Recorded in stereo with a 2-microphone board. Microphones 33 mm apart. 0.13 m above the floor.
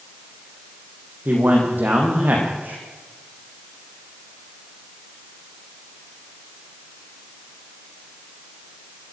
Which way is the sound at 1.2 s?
75° right (ahead or behind).